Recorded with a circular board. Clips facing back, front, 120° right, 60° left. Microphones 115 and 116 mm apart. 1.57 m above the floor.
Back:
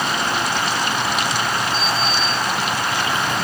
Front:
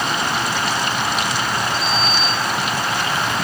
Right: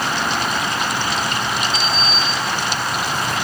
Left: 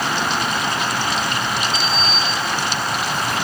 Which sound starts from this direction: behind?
A sliding door, at 1.7 s.